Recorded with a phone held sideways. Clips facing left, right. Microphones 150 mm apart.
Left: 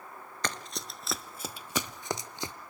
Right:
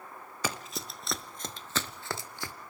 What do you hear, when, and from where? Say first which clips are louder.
0.4 s running footsteps: right 1 dB; 5° right (ahead or behind), 0.9 m; by 2.5 s 20° left (ahead or behind), 1.0 m